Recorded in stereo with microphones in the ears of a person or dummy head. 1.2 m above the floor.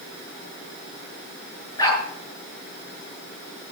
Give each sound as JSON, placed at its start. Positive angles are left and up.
{"t": 1.8, "sound": "a dog barking", "side_deg": 20, "distance_m": 8.5}